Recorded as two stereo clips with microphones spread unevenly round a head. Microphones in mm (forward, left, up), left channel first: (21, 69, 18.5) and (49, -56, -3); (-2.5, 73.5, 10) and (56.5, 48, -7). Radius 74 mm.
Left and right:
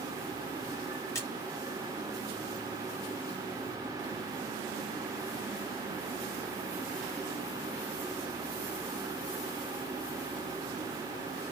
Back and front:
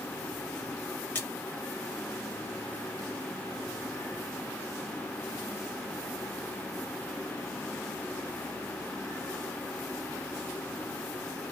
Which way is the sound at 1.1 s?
155° left.